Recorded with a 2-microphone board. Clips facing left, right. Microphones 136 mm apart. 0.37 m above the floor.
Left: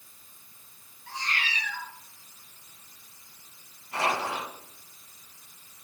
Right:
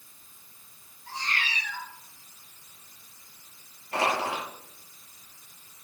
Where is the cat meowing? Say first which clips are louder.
Even; 35° right (ahead or behind), 2.5 m.